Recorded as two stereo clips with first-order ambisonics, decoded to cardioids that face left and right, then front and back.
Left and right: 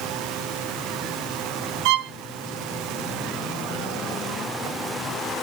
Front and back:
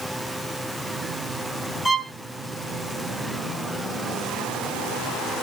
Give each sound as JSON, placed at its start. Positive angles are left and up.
{"t": 1.9, "sound": "a violin", "azimuth_deg": -85, "distance_m": 0.5}